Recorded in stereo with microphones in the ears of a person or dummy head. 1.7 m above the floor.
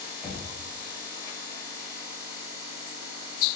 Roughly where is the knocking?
Centre.